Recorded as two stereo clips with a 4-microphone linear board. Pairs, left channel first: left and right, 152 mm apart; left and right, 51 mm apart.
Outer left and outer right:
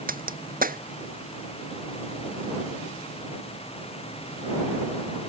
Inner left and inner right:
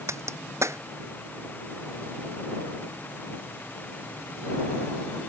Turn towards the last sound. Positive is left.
turn(degrees=-65)  # may be behind; listen again after turning